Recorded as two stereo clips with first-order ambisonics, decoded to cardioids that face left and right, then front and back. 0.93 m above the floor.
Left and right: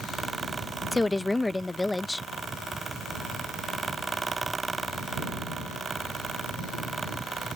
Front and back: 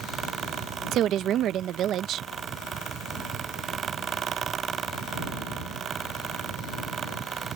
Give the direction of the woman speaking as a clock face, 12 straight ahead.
6 o'clock.